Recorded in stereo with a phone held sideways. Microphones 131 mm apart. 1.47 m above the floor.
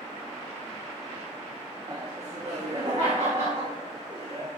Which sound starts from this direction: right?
Laughter, at 1.9 s.